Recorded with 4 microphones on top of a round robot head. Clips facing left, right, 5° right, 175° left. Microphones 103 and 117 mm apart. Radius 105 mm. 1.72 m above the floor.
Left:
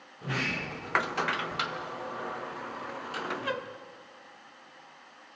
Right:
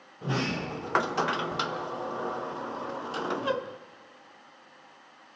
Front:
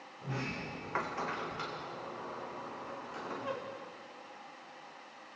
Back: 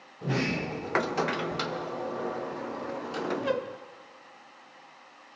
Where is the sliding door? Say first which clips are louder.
Right 4 dB, back 11 dB; 150° right, 0.6 m.